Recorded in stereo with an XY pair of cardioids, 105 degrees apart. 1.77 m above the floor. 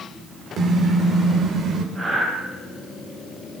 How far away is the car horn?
About 3.5 m.